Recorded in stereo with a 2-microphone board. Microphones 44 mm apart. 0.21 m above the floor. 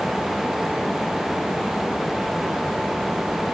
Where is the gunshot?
I don't hear a gunshot.